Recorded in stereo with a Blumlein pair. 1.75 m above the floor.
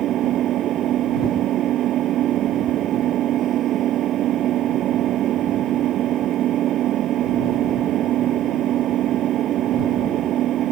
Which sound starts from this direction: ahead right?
An engine running, at 0.0 s.